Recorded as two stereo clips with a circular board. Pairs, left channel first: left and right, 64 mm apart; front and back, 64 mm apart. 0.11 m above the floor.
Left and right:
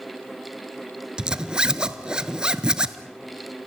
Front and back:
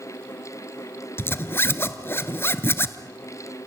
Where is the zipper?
20° right, 0.8 m.